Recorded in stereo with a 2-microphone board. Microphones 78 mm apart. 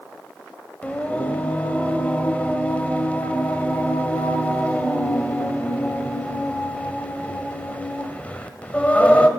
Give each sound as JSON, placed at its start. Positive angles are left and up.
{"t": 0.8, "sound": "singing", "side_deg": 20, "distance_m": 1.3}